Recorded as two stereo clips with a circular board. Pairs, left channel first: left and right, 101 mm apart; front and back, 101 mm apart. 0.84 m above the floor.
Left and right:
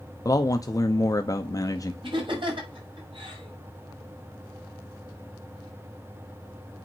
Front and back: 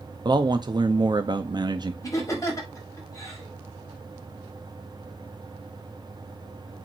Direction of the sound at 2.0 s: 55° right.